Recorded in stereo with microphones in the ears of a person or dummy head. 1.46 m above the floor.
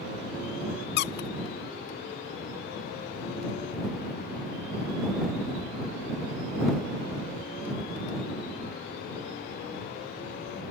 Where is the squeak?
60° left (ahead or behind).